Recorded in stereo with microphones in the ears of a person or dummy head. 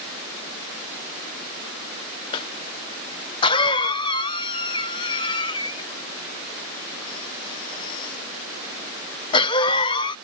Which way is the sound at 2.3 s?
25° left (ahead or behind).